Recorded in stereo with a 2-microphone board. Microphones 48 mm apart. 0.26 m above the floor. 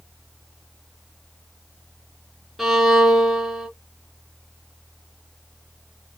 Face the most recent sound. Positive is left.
turn(degrees=-5)  # may be behind; listen again after turning